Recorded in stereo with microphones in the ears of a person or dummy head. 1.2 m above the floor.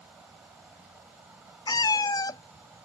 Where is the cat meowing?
20° left (ahead or behind).